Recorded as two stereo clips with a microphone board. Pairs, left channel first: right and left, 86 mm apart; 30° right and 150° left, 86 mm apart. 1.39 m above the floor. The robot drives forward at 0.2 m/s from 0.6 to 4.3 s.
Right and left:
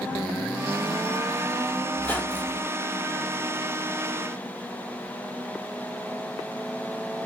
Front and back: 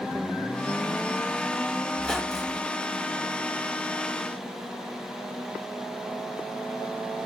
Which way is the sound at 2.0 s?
100° right.